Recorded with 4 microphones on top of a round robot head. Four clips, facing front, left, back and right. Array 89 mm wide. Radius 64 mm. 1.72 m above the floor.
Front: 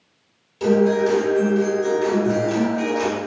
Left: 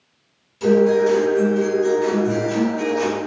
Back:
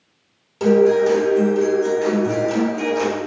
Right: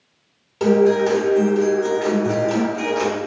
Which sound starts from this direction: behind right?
A guitar, at 0.6 s.